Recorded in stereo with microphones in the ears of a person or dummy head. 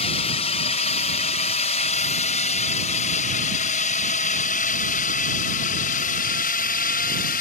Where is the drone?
40° left (ahead or behind); by 7.4 s 55° left (ahead or behind).